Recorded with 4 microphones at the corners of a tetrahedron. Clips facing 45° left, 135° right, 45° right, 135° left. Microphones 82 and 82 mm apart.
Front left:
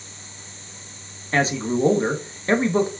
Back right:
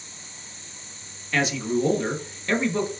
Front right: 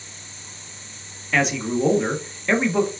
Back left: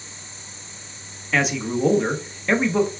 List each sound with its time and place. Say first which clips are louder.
1.3 s a man speaking: front left 2 dB, front right 1 dB; 50° left, 0.9 m